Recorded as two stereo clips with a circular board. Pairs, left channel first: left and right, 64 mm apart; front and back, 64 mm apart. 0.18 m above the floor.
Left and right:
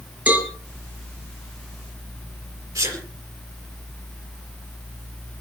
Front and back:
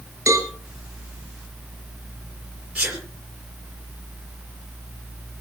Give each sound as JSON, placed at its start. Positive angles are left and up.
{"t": 0.3, "sound": "a cowbell", "azimuth_deg": -145, "distance_m": 2.0}
{"t": 2.8, "sound": "a sneeze", "azimuth_deg": -110, "distance_m": 4.0}